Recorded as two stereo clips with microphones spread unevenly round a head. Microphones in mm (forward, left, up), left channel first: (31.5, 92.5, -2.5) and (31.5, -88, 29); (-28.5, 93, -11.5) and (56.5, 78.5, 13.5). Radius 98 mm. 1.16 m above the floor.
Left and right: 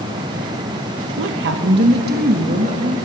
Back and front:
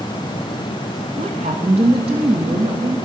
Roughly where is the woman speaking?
Right.